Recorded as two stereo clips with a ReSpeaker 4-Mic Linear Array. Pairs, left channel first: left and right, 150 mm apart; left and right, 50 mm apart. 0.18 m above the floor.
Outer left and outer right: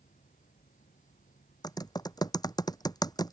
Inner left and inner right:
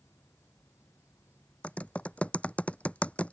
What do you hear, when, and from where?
0.0 s an insect: 55° left (ahead or behind)
1.6 s typing on a keyboard: 25° left (ahead or behind)